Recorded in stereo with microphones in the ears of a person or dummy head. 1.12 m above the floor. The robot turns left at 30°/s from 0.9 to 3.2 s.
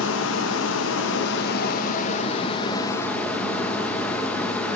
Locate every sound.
0.0 s running water: 80° left, 1.0 m; by 4.8 s 15° left, 1.0 m